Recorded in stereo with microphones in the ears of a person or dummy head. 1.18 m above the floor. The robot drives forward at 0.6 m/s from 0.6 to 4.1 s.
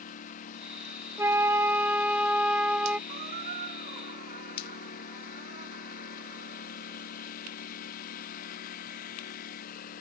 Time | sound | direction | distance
0.0 | a lawn mower | 45° left (ahead or behind) | ?
1.2 | a flute | 10° right (ahead or behind) | ?
3.1 | a squeak | 40° right (ahead or behind) | ?